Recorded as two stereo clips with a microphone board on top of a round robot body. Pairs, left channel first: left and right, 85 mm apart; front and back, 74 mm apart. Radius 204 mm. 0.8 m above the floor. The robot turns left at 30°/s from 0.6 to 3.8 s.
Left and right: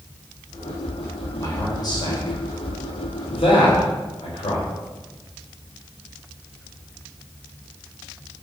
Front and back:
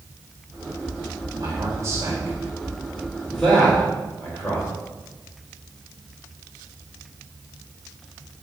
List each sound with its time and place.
1.4 s a man speaking: 145° left, 3.5 m; by 4.7 s 70° left, 3.5 m